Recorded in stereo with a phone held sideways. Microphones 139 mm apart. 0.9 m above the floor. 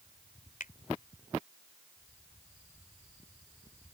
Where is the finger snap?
75° left (ahead or behind).